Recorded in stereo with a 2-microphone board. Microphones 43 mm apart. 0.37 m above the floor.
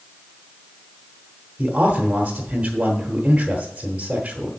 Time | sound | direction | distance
1.6 | a man speaking | 30° right (ahead or behind) | 1.2 m